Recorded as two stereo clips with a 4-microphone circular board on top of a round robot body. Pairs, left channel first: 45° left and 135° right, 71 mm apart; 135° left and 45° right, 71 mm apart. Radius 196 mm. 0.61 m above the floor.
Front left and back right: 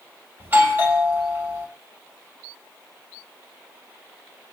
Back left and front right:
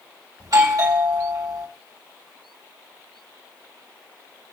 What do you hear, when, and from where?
0.4 s a doorbell: 75° right, 3.5 m